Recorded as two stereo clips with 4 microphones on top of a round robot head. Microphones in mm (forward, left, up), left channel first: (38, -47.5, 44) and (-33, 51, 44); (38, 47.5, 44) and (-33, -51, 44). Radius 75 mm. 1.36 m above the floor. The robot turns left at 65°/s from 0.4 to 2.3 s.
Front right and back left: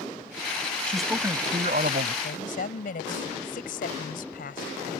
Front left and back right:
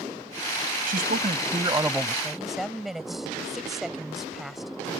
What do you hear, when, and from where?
0.9 s a man speaking: 135° right; by 2.1 s 140° left
2.2 s a woman speaking: 35° right